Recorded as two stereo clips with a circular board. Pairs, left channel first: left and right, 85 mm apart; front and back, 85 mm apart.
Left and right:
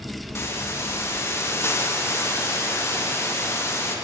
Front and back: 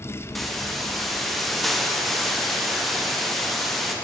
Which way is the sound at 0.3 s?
85° left.